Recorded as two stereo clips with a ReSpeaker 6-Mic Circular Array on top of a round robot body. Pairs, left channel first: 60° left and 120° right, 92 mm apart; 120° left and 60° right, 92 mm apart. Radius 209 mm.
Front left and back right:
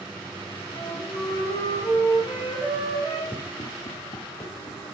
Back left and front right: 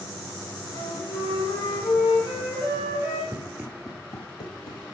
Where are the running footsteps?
5° right, 1.0 m; by 4.8 s 115° left, 1.3 m.